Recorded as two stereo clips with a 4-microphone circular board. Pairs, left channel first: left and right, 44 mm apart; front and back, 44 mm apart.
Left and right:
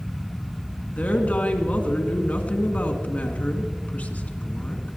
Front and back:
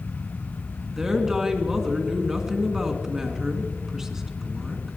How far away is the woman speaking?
About 2.0 m.